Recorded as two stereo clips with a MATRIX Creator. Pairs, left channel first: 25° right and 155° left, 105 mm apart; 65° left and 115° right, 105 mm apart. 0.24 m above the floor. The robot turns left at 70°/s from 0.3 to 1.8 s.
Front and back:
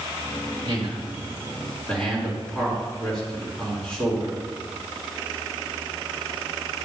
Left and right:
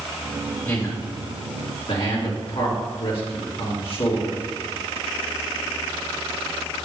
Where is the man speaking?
140° left, 2.5 m; by 4.4 s 60° left, 2.5 m.